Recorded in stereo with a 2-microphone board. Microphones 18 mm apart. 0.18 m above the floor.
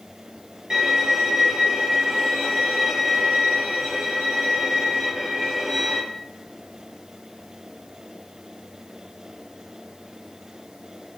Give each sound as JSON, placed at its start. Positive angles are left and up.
{"t": 0.7, "sound": "a violin", "side_deg": -40, "distance_m": 0.8}